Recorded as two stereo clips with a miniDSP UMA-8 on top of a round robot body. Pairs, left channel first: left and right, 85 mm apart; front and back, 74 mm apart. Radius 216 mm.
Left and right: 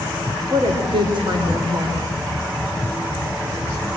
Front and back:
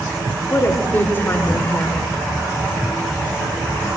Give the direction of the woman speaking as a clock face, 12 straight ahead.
2 o'clock.